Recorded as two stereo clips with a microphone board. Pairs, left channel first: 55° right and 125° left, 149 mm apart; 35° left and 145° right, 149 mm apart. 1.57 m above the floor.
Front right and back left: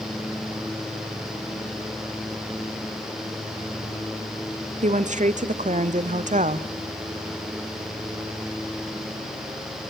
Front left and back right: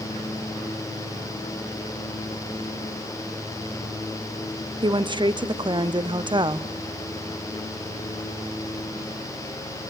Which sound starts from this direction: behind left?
A woman speaking, at 4.8 s.